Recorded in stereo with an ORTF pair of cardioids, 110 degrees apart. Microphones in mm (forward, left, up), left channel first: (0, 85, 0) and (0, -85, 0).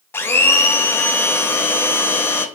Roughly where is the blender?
Ahead.